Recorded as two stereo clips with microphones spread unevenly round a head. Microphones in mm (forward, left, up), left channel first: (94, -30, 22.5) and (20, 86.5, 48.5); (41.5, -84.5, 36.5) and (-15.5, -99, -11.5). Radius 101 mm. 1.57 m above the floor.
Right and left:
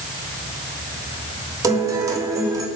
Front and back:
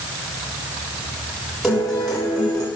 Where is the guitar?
70° left, 1.6 m.